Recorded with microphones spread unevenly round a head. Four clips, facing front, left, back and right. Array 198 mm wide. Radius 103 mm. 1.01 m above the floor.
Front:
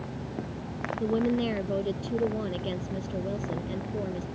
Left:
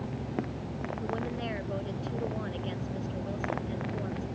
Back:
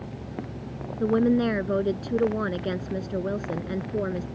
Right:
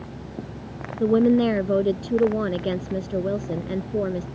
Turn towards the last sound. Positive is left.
turn(degrees=-115)